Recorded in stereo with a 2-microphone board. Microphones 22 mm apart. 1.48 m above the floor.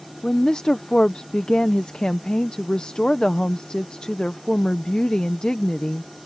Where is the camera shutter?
No camera shutter in this recording.